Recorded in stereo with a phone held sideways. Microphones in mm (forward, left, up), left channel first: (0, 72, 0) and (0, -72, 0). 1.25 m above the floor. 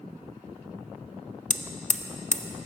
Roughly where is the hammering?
Left.